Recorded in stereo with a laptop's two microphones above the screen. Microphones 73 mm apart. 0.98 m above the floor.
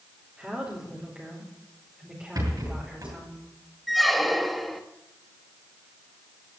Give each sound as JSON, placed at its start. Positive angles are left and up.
{"t": 0.4, "sound": "a woman speaking", "side_deg": -15, "distance_m": 4.0}
{"t": 2.4, "sound": "a rattle", "side_deg": -55, "distance_m": 7.0}
{"t": 3.9, "sound": "a squeak", "side_deg": 0, "distance_m": 0.9}